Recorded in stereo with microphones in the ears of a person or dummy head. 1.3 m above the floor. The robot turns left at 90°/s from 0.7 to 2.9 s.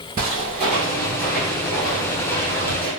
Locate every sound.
0.2 s footsteps: 25° right (ahead or behind), 1.5 m; by 2.9 s 30° right (ahead or behind), 2.5 m